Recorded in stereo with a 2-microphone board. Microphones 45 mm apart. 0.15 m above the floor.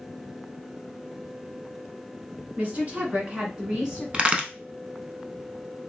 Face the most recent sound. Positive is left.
turn(degrees=-25)  # may be behind; listen again after turning